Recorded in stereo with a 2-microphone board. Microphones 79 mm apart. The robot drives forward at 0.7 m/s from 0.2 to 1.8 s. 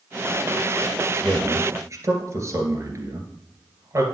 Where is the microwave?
I don't hear a microwave.